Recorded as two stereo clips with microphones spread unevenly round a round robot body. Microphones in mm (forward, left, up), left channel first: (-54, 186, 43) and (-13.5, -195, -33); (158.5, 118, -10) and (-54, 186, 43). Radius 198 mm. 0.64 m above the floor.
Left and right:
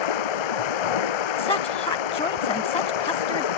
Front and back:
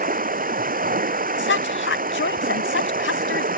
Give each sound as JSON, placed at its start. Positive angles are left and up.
{"t": 0.0, "sound": "running water", "azimuth_deg": 110}
{"t": 1.4, "sound": "a woman speaking", "azimuth_deg": 15}